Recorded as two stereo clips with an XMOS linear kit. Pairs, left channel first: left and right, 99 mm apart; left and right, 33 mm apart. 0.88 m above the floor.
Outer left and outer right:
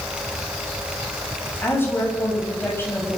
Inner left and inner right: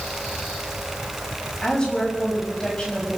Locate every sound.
1.6 s a woman speaking: 20° left (ahead or behind), 6 m